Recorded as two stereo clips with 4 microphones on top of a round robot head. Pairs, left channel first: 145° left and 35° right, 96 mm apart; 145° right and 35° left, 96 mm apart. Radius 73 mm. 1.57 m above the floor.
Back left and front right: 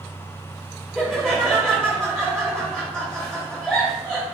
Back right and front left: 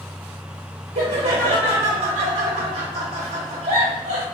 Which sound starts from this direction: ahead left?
Laughter, at 0.9 s.